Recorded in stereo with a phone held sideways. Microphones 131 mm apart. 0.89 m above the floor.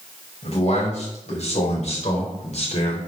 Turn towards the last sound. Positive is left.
turn(degrees=60)  # may be behind; listen again after turning